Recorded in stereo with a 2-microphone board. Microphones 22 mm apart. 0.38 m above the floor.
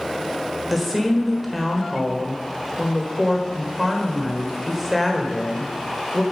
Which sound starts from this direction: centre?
A woman speaking, at 0.7 s.